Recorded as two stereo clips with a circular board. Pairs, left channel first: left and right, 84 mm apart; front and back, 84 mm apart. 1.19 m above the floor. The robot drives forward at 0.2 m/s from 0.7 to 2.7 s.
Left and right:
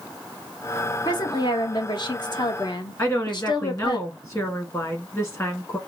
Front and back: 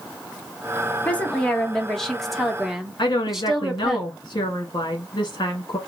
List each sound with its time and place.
1.1 s a woman speaking: 70° left, 0.9 m; by 4.0 s 95° left, 0.9 m
3.0 s a woman speaking: 35° left, 1.7 m